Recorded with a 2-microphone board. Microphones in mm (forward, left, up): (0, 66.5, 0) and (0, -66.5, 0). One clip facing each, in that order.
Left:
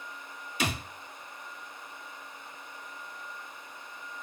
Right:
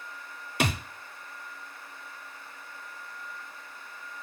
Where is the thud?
60° right (ahead or behind), 0.6 m.